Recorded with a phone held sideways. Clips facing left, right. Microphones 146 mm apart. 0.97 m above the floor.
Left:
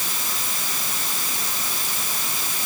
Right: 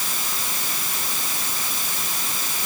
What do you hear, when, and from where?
Only background noise.